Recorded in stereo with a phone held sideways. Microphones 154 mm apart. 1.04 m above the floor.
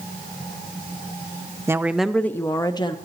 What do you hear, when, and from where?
1.7 s a woman speaking: 15° right (ahead or behind), 0.5 m; by 3.0 s 30° left (ahead or behind), 0.8 m